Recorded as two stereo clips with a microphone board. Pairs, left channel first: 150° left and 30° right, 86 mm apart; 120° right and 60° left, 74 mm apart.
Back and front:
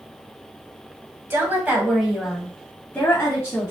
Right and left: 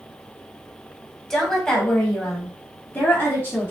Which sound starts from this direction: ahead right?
A woman speaking, at 1.3 s.